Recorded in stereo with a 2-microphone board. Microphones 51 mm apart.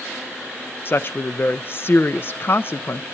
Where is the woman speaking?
45° left (ahead or behind), 0.6 m.